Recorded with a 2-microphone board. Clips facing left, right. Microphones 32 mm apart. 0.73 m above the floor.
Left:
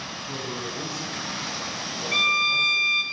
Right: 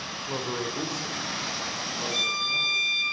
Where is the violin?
35° left (ahead or behind), 1.3 m.